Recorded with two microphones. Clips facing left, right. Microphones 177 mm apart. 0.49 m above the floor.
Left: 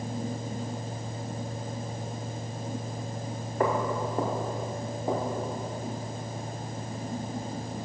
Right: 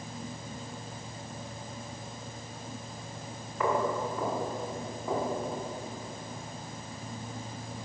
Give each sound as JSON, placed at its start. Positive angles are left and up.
{"t": 3.6, "sound": "footsteps", "side_deg": 40, "distance_m": 2.5}